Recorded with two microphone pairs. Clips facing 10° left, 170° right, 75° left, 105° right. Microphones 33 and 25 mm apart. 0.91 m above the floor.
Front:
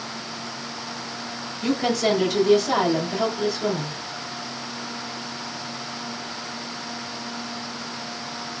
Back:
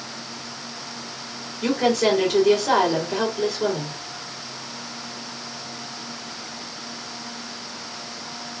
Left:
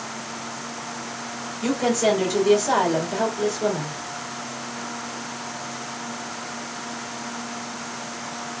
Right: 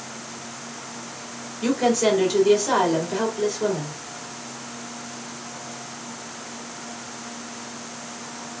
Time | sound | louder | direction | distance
1.6 | a woman speaking | back 2 dB, right 1 dB | 160° right | 2.5 m